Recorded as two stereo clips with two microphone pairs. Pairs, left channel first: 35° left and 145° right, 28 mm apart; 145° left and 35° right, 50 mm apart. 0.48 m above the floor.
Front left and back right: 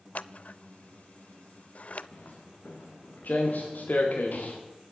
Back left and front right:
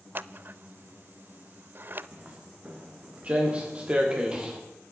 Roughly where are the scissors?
Ahead.